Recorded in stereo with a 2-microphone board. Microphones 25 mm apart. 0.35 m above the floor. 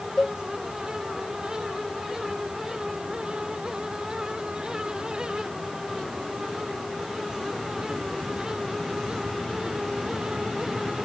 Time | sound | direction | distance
0.2 | a cowbell | 35° left (ahead or behind) | ?